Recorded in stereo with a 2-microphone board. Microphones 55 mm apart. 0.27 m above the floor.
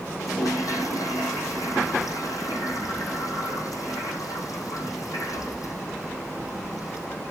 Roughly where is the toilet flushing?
Left.